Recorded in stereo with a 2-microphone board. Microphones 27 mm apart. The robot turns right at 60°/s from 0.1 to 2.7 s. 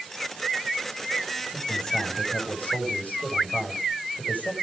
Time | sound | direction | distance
1.5 | a man speaking | 5° left | 6 m